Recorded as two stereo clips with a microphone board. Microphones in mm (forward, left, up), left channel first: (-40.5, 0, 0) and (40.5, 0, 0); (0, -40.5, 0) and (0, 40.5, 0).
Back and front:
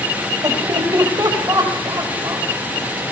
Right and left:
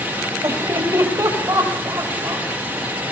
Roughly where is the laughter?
Ahead left.